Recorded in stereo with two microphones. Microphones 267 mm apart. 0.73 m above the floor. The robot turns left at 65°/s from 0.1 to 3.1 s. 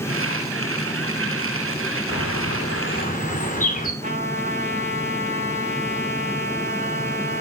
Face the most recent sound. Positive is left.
turn(degrees=-25)  # may be behind; listen again after turning